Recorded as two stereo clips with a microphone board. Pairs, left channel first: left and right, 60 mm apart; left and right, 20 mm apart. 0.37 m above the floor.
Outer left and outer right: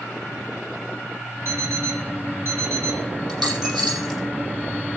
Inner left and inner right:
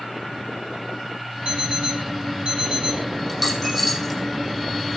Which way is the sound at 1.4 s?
45° right (ahead or behind).